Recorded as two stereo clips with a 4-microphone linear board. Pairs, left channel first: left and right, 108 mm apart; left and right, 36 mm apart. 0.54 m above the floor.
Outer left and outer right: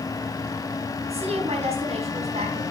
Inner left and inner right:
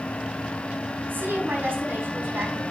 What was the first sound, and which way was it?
A woman speaking, 75° right (ahead or behind).